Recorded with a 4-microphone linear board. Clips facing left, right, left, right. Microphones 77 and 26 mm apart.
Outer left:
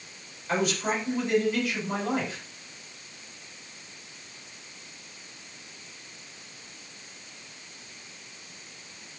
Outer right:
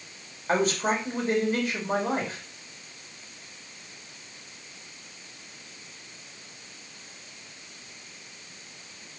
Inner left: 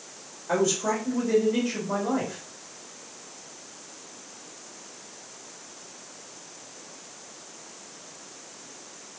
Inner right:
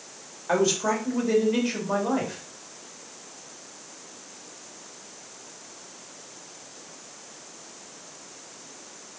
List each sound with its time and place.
0.5 s a man speaking: 40° right (ahead or behind), 2.5 m